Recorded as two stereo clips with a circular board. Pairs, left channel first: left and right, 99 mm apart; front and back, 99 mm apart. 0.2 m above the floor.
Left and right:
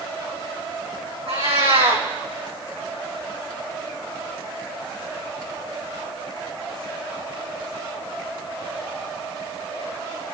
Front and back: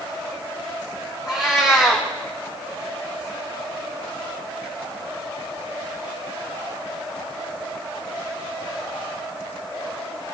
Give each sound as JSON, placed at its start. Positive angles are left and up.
{"t": 1.3, "sound": "a cat meowing", "azimuth_deg": -95, "distance_m": 4.0}